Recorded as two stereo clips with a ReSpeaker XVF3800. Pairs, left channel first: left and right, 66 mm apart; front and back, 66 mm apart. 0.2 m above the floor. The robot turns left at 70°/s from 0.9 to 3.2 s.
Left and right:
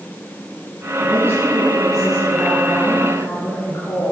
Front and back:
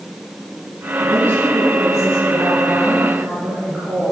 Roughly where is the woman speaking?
Right.